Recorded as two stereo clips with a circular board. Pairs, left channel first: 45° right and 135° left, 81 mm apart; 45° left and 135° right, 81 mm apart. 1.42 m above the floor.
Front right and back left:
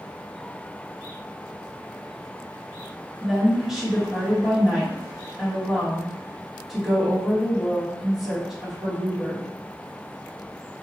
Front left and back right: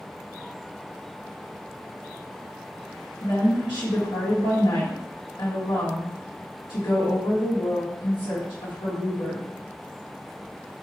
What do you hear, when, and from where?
3.2 s a woman speaking: 55° left, 2.5 m